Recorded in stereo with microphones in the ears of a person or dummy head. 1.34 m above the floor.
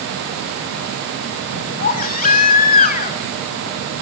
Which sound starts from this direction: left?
A baby crying, at 1.8 s.